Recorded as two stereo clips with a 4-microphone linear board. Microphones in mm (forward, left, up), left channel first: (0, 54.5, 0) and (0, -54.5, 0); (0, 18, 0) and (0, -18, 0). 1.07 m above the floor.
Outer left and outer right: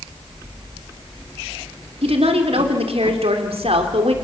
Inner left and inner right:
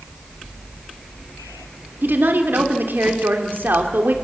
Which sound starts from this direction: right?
A woman speaking, at 2.0 s.